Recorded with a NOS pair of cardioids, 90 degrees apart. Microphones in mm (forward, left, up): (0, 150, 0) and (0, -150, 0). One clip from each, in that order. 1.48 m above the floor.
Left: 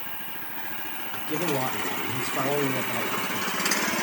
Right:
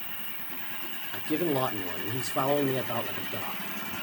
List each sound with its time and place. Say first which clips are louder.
0.0 s an insect: left 3 dB; 10° left, 2.5 m
1.1 s a man speaking: even; 10° right, 0.8 m